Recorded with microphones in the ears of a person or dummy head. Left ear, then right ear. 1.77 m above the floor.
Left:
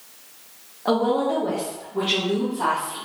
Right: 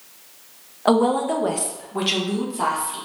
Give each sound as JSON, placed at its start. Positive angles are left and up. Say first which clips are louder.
{"t": 0.8, "sound": "a woman speaking", "louder": "right 2 dB", "side_deg": -25, "distance_m": 0.5}